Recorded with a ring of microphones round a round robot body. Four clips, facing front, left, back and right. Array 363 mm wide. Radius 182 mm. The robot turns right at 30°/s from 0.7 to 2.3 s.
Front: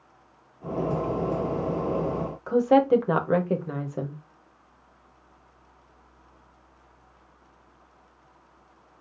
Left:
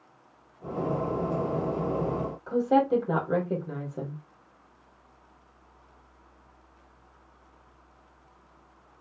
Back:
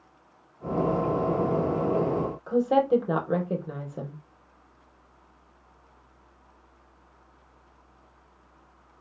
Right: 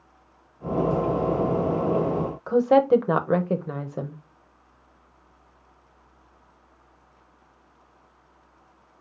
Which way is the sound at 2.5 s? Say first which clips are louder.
Right 5 dB, front 3 dB; 70° right.